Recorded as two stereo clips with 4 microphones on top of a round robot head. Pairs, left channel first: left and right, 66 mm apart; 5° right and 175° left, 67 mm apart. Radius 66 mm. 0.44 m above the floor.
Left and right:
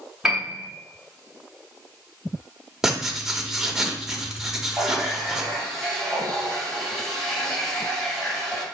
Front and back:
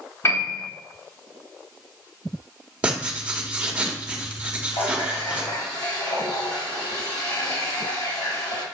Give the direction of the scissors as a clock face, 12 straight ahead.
I don't hear scissors.